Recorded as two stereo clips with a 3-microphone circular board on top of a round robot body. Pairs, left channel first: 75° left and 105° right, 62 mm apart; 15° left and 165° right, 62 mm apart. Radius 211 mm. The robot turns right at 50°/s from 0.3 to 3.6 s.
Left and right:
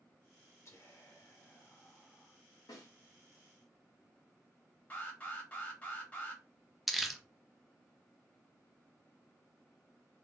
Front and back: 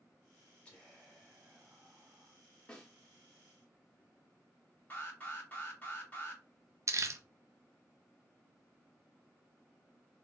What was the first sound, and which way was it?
Whispering, 85° left.